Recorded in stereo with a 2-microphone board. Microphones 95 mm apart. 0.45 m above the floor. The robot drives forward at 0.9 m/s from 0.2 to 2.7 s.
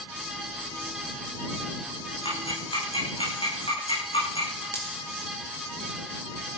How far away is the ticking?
About 9 m.